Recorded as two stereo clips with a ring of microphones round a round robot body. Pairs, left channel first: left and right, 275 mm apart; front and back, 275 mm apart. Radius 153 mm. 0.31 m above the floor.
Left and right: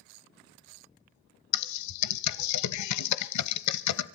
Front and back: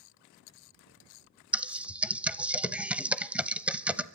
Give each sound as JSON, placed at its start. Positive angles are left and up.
{"t": 1.5, "sound": "typing on a keyboard", "azimuth_deg": 95, "distance_m": 0.8}